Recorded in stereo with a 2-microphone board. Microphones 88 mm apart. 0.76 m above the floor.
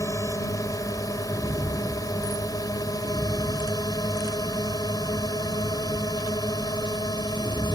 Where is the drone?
40° left (ahead or behind); by 7.8 s 55° left (ahead or behind).